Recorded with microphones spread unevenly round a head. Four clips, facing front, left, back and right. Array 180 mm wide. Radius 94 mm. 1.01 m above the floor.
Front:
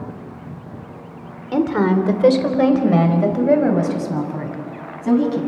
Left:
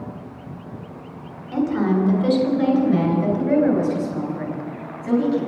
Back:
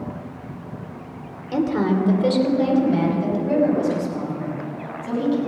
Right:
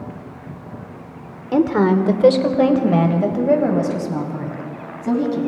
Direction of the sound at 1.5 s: 75° right.